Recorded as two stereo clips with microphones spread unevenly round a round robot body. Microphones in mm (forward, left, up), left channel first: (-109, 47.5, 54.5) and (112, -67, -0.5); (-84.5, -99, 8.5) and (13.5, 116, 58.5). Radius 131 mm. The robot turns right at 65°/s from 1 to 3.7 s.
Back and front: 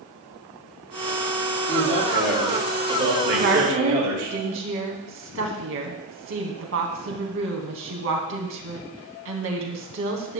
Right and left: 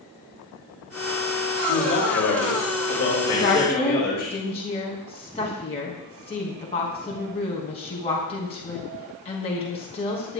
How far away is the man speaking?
About 6.5 m.